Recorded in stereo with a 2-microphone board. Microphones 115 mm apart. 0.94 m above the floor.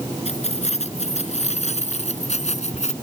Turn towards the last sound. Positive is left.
turn(degrees=80)